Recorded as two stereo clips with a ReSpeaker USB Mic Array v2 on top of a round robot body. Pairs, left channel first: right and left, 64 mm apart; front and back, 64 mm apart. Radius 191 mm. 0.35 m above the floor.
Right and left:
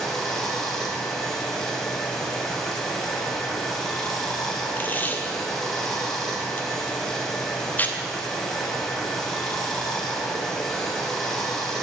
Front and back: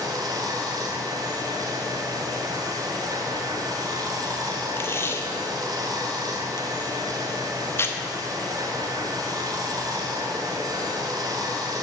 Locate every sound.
0.0 s running water: 175° right, 2.5 m
4.8 s tape being pulled: 35° right, 1.7 m